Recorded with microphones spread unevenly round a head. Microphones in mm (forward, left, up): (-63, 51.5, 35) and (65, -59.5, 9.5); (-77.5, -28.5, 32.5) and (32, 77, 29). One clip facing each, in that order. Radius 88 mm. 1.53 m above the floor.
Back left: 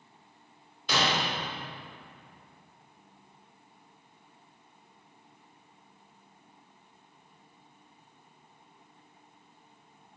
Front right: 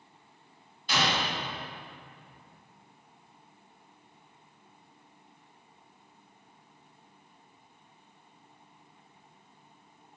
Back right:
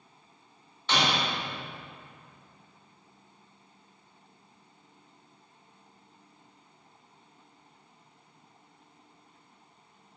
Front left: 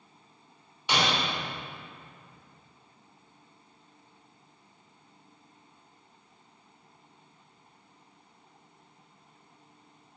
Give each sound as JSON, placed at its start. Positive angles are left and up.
{"t": 0.9, "sound": "breaking glass", "azimuth_deg": 120, "distance_m": 2.5}